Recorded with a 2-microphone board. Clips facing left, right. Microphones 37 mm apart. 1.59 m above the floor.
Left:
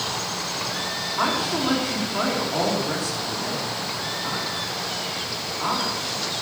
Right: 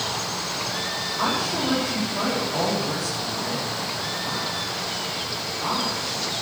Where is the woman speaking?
60° left (ahead or behind), 4.5 m.